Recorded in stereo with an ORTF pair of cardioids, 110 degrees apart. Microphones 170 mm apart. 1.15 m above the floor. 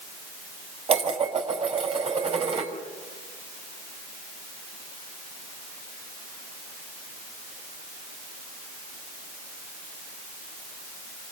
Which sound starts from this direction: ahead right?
Dishes clattering, at 0.9 s.